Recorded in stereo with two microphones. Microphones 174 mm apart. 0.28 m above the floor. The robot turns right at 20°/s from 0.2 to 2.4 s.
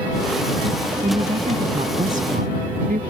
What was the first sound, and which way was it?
A woman speaking, 35° right (ahead or behind).